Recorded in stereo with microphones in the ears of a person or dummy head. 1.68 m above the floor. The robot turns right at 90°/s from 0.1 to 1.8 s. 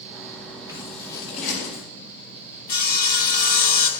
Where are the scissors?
20° right (ahead or behind), 5 m; by 1.8 s 70° left (ahead or behind), 5 m.